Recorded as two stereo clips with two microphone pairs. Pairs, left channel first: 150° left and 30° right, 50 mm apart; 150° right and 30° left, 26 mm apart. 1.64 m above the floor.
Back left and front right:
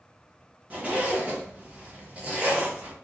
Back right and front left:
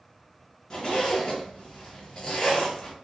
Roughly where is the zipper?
Right.